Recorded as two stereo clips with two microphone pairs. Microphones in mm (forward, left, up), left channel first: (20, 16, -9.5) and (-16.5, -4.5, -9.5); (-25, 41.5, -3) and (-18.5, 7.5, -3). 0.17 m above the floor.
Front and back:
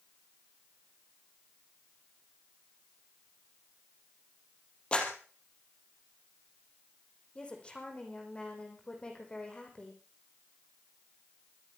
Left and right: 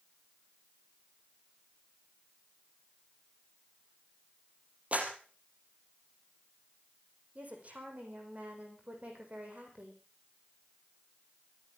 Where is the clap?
35° right, 3.5 m.